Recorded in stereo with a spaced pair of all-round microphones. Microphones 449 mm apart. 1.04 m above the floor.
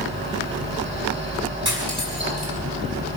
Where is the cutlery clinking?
55° right (ahead or behind), 6.5 m.